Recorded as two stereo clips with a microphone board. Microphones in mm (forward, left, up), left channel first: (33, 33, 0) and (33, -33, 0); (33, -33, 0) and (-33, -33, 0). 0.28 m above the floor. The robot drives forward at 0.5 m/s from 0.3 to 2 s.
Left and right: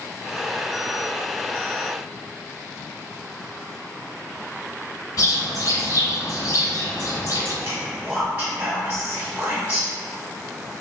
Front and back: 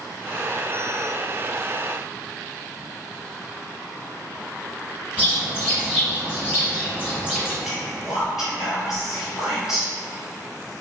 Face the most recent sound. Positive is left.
turn(degrees=-100)